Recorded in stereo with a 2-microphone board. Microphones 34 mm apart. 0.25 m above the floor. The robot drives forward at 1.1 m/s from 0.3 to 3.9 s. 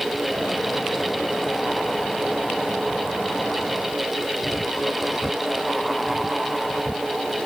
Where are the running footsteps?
No running footsteps in this recording.